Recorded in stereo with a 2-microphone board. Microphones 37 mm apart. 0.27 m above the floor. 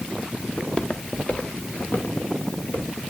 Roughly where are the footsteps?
Centre.